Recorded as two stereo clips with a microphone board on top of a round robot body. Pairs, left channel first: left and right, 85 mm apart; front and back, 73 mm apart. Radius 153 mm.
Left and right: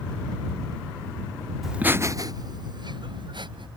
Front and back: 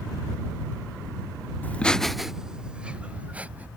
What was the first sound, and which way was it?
Laughter, 5° right.